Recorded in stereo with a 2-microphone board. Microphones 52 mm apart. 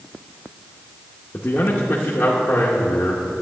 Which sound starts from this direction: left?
A man speaking, at 1.3 s.